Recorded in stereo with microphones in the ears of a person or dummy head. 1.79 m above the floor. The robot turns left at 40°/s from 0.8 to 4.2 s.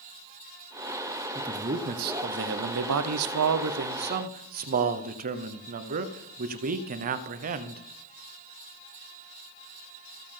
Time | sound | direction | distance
1.4 | a man speaking | 25° right | 0.8 m